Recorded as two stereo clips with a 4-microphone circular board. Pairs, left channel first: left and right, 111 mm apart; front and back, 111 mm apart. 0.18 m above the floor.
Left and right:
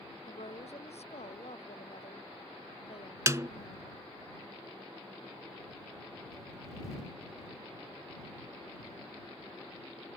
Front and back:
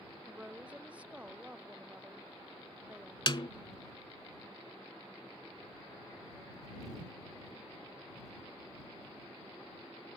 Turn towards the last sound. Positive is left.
turn(degrees=-35)